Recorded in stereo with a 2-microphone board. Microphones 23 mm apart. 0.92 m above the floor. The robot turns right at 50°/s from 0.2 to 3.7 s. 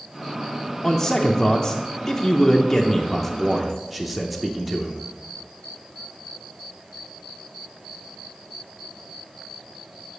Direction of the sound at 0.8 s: 15° left (ahead or behind).